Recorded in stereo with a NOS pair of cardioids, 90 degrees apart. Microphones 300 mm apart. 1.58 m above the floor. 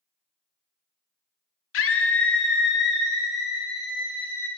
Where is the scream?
50° left, 0.9 m; by 4.5 s 30° left, 2.5 m.